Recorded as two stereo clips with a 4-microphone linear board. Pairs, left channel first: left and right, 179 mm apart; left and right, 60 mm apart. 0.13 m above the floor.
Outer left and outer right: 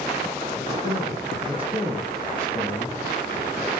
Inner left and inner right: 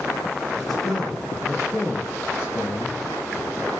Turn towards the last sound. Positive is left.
turn(degrees=-20)  # may be behind; listen again after turning